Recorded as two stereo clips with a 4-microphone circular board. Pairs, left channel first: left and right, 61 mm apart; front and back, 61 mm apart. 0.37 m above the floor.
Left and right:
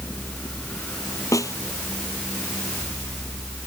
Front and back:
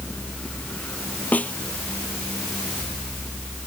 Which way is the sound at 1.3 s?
65° left.